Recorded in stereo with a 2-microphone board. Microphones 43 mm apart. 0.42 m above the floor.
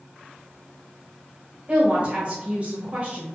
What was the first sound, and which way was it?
A woman speaking, 35° right (ahead or behind).